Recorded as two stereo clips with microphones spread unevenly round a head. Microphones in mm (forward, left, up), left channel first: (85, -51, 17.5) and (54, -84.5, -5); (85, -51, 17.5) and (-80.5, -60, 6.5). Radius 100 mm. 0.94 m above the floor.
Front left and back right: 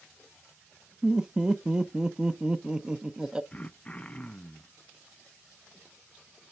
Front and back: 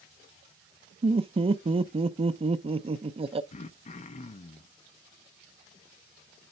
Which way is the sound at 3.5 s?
35° right.